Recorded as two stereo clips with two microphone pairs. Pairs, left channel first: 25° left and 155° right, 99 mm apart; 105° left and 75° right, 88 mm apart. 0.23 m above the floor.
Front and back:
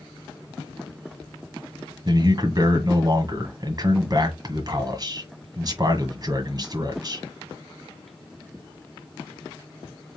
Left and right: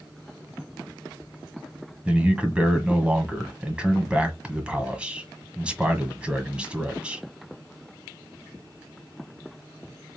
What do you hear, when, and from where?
2.0 s a man speaking: 145° right, 1.5 m